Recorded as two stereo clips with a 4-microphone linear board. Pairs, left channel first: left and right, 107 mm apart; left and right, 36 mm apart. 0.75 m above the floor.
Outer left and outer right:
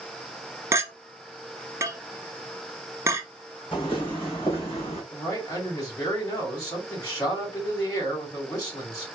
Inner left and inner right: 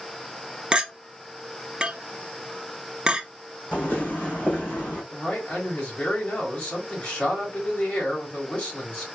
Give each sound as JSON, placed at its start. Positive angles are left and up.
{"t": 0.7, "sound": "a clink", "side_deg": -25, "distance_m": 0.6}
{"t": 3.7, "sound": "footsteps", "side_deg": 50, "distance_m": 2.5}
{"t": 5.1, "sound": "a man speaking", "side_deg": 35, "distance_m": 2.5}